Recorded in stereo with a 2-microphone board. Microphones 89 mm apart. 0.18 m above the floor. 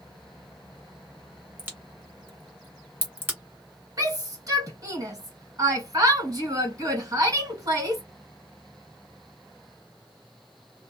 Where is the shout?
40° right (ahead or behind), 1.3 m.